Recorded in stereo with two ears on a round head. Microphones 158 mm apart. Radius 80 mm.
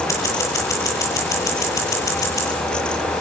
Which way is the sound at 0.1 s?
15° left (ahead or behind).